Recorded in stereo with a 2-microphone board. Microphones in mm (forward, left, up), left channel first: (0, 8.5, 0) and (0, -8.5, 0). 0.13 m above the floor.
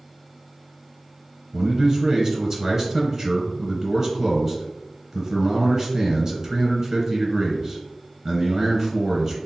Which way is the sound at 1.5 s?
20° right (ahead or behind).